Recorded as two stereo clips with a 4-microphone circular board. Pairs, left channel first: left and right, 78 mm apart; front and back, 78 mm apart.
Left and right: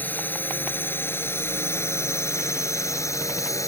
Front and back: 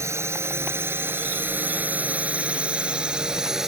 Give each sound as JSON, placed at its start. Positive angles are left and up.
{"t": 0.0, "sound": "a drone", "azimuth_deg": 150}